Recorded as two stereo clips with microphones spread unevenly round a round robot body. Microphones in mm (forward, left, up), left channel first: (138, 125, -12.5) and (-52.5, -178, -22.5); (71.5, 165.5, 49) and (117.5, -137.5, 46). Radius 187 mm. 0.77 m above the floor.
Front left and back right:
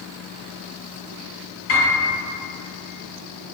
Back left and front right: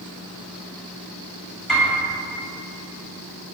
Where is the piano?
10° left, 1.9 m.